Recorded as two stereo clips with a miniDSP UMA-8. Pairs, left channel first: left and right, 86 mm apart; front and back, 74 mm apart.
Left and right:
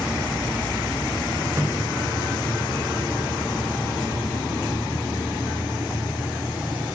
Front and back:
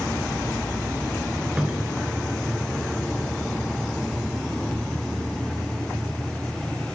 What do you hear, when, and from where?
1.6 s a cupboard door: 115° right, 1.9 m